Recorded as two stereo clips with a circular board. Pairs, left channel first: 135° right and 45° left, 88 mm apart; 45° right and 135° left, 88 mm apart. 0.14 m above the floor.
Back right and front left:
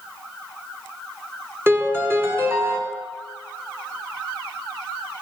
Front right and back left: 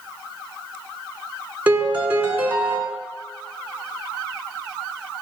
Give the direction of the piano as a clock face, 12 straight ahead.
9 o'clock.